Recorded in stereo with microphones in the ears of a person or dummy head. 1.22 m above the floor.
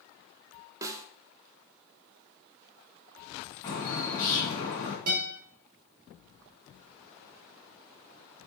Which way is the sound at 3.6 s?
20° left (ahead or behind).